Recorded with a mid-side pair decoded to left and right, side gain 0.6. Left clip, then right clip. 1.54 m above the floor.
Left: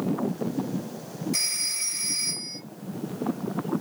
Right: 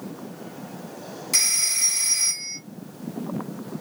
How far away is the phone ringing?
About 1.5 m.